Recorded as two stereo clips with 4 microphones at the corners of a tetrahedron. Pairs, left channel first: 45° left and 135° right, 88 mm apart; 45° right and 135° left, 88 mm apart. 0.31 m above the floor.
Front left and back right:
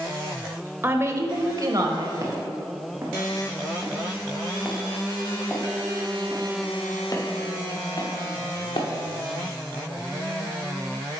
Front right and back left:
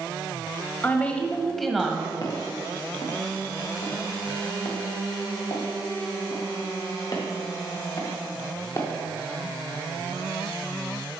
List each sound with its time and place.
0.8 s a woman speaking: 95° right, 1.2 m; by 2.1 s 145° right, 1.6 m
2.2 s footsteps: 85° right, 3.5 m; by 8.9 s 10° left, 3.5 m